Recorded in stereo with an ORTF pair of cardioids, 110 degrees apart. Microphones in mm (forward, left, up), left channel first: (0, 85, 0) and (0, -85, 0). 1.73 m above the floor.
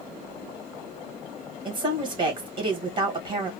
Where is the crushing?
I don't hear crushing.